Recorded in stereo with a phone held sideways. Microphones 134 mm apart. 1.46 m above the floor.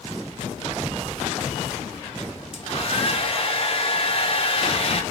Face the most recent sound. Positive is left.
turn(degrees=45)  # may be behind; listen again after turning